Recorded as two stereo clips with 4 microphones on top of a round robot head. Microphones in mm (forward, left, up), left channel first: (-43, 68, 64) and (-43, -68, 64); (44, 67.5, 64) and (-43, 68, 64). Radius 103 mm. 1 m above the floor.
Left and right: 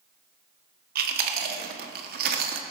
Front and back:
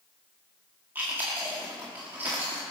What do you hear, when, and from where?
0.9 s chewing: 105° right, 1.0 m